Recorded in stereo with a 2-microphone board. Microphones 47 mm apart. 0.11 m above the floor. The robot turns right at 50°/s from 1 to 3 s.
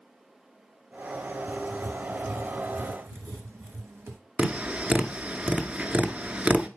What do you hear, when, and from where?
1.5 s writing: 150° right, 1.1 m; by 4.2 s 75° right, 1.1 m
4.4 s tapping: 25° right (ahead or behind), 0.7 m